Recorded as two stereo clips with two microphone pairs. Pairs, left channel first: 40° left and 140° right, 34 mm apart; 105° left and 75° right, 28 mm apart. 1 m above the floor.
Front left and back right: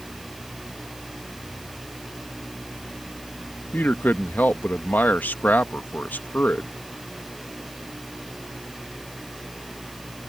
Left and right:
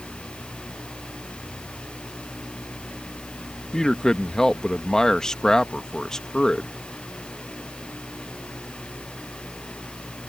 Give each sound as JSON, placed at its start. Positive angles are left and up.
{"t": 3.7, "sound": "a man speaking", "azimuth_deg": 35}